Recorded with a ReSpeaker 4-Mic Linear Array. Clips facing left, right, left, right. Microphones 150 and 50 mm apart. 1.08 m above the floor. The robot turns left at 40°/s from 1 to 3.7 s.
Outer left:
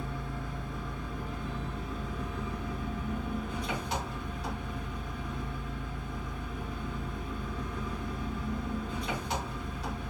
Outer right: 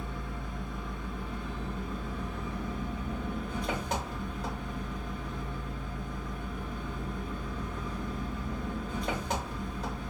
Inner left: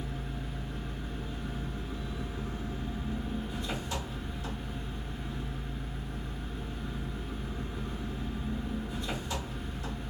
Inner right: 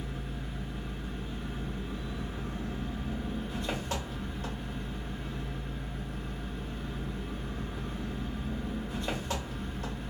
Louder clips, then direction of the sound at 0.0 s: Outer left 1 dB, even; 20° right.